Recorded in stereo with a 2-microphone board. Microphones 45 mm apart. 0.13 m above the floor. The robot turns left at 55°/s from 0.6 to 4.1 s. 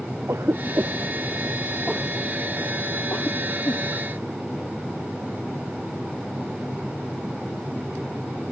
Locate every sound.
0.3 s a cough: 75° right (ahead or behind); by 3.8 s 80° left